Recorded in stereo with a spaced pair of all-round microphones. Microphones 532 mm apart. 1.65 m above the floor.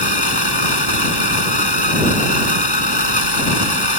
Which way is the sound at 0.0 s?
45° left (ahead or behind).